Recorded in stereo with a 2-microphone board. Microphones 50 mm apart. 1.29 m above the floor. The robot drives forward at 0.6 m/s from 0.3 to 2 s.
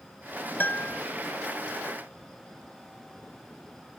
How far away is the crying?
No crying in this recording.